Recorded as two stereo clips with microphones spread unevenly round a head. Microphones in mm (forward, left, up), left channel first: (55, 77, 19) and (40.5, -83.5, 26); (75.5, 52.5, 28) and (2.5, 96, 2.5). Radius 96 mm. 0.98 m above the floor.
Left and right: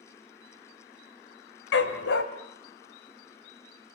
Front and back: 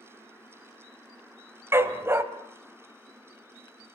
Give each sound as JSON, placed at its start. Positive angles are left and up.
{"t": 1.7, "sound": "a dog barking", "azimuth_deg": 80, "distance_m": 1.8}